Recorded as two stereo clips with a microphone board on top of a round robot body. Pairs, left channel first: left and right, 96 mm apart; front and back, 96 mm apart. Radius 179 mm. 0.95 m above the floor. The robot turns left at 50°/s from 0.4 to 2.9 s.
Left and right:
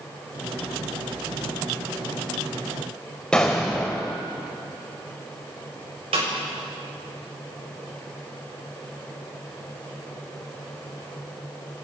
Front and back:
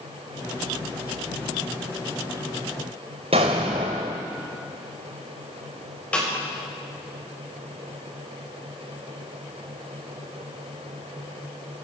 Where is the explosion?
170° left, 0.8 m.